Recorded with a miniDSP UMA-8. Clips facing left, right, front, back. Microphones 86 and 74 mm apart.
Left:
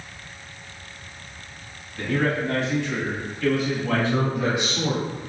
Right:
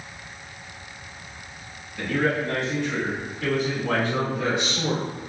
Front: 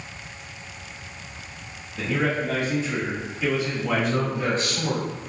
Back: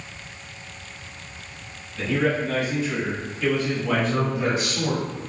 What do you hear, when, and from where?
2.0 s a man speaking: 20° left, 1.3 m; by 4.8 s 100° right, 1.5 m
3.9 s a man speaking: 130° left, 1.1 m